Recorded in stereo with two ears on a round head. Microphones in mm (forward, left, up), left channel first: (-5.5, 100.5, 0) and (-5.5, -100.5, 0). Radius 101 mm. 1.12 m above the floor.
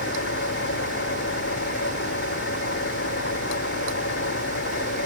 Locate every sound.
0.0 s an engine running: 50° left (ahead or behind)